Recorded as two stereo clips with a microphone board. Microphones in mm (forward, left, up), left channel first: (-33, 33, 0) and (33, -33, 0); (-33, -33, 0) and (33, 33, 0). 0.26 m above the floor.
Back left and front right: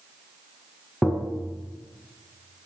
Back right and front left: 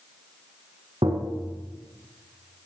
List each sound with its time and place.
1.0 s tapping: 50° left, 2 m